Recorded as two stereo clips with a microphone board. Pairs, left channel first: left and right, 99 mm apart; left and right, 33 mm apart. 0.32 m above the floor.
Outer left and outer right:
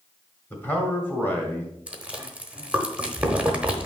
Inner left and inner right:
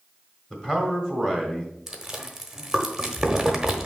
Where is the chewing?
10° right (ahead or behind), 1.0 m.